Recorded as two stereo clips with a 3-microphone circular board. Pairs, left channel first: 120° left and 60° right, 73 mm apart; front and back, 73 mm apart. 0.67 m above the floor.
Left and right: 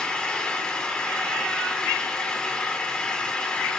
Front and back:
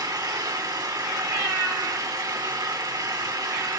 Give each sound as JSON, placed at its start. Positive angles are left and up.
{"t": 0.0, "sound": "an engine running", "azimuth_deg": -165, "distance_m": 2.0}